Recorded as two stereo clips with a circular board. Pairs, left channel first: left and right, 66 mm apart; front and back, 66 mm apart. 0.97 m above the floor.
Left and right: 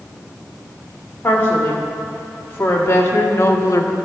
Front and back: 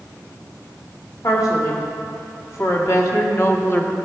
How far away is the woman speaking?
About 2.5 m.